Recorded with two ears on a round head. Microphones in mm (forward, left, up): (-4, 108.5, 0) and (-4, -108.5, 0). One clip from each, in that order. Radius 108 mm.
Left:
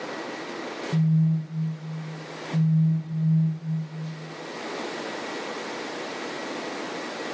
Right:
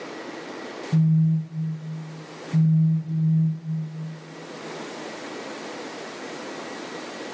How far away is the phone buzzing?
About 0.6 m.